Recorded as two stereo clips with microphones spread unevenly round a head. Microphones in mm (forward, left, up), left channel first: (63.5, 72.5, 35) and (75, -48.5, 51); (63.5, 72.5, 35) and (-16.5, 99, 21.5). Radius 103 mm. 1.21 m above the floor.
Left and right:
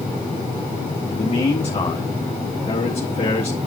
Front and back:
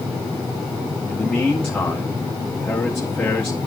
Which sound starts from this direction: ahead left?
A man speaking, at 1.1 s.